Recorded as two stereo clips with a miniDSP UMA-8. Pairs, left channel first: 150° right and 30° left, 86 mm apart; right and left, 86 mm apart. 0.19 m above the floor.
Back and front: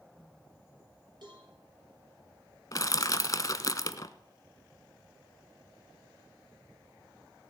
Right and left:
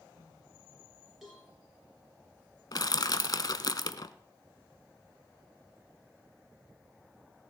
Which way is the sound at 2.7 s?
115° right.